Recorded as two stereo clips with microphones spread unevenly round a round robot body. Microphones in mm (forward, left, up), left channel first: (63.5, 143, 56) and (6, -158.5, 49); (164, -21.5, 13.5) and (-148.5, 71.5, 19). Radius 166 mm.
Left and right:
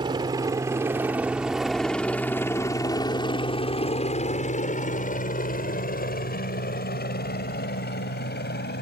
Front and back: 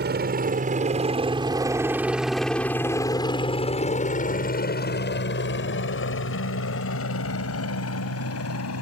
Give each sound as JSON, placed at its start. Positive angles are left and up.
{"t": 0.0, "sound": "a helicopter", "azimuth_deg": -165}